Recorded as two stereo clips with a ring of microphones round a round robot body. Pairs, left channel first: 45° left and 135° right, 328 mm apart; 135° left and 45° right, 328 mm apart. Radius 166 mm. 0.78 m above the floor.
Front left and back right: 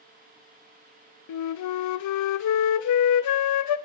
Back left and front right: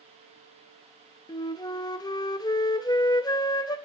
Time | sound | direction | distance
1.3 | a flute | 60° left | 0.5 m